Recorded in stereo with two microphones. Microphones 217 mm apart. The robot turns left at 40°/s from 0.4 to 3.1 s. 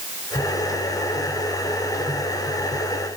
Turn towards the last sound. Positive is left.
No sound to turn to.